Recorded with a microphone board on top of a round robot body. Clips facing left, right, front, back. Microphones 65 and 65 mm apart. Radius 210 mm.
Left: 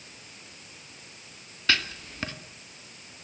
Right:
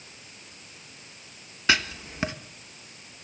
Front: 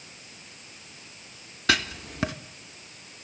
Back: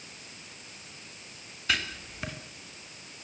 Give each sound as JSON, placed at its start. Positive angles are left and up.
{"t": 1.7, "sound": "writing", "azimuth_deg": -15, "distance_m": 1.1}